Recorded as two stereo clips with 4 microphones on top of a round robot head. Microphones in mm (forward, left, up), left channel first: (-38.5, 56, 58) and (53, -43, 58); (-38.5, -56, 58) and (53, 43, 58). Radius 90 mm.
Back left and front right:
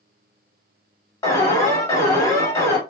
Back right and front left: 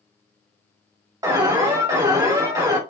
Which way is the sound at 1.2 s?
85° left.